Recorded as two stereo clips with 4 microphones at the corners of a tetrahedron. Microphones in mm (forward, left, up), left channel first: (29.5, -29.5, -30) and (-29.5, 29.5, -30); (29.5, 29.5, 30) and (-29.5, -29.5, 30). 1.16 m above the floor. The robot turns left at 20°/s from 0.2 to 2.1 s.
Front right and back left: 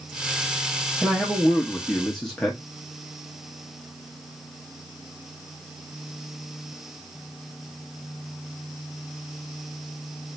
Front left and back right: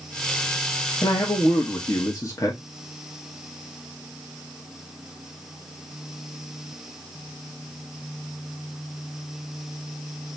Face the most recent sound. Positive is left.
turn(degrees=40)